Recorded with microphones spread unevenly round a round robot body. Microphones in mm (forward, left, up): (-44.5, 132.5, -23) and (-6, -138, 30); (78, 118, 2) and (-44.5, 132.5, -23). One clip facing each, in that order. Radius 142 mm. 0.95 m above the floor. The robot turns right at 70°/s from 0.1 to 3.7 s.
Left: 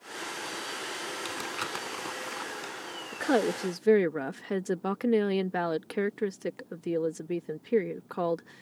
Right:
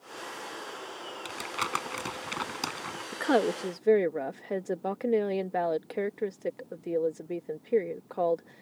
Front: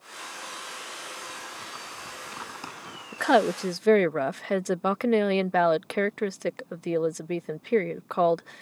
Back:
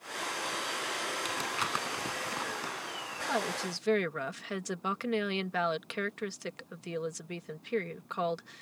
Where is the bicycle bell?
No bicycle bell in this recording.